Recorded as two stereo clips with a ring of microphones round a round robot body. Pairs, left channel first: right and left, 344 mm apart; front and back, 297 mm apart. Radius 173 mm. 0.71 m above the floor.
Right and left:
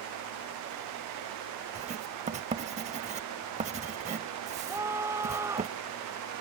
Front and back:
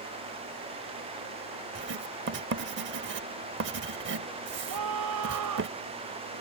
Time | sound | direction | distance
1.8 | writing | 155° left | ?
4.7 | a scream | 170° left | ?